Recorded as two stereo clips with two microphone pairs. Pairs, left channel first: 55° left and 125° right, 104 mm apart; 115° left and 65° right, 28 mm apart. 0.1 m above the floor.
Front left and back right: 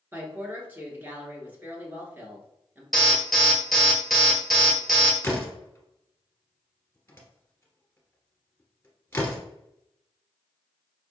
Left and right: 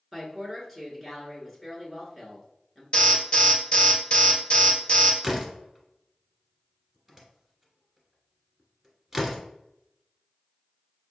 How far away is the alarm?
About 1.3 m.